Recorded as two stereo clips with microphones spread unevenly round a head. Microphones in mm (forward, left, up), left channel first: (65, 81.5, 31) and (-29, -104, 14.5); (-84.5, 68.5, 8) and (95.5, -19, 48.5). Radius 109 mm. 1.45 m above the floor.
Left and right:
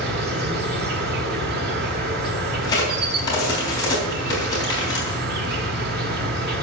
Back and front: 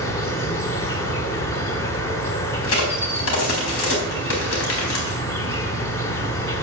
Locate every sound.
0.0 s an insect: 120° right, 1.3 m
2.6 s a crack: 135° left, 4 m